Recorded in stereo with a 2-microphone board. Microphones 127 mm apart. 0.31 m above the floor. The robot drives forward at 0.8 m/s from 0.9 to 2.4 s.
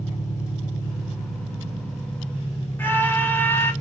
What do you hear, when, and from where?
0.0 s an engine running: 70° left (ahead or behind), 1.6 m; by 3.8 s 50° left (ahead or behind), 1.9 m
2.8 s a scream: 15° left (ahead or behind), 1.2 m